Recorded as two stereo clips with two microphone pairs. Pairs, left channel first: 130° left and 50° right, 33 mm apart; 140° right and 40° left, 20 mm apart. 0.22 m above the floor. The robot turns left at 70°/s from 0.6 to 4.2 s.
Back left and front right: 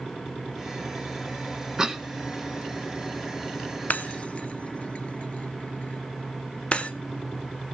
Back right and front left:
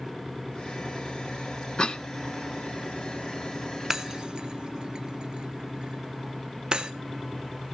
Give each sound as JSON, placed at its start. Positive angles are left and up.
{"t": 1.8, "sound": "a cough", "azimuth_deg": -115, "distance_m": 1.6}
{"t": 3.9, "sound": "breaking glass", "azimuth_deg": 100, "distance_m": 1.2}